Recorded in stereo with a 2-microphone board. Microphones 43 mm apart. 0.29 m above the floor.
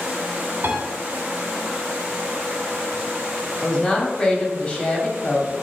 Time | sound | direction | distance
0.6 | a piano | 55° right (ahead or behind) | 1.0 m
3.6 | a woman speaking | 25° left (ahead or behind) | 1.3 m